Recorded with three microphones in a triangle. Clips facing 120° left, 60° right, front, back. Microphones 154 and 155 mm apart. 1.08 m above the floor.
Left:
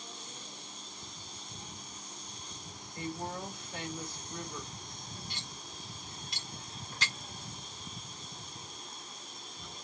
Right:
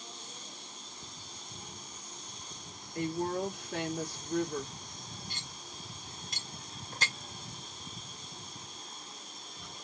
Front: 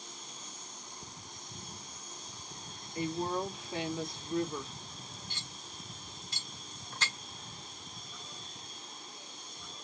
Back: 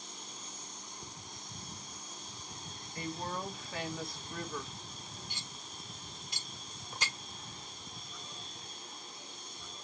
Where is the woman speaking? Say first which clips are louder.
Right 7 dB, front 6 dB; 70° right, 2.5 m.